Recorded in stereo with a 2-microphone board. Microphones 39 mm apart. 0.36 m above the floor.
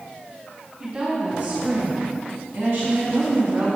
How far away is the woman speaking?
About 3 m.